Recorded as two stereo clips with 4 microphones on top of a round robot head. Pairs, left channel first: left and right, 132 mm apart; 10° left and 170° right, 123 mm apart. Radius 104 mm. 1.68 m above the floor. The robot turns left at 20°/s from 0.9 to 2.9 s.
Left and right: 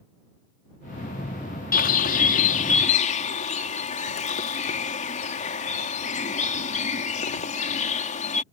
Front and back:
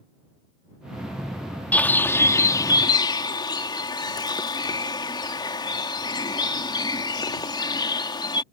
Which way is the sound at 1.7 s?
85° left.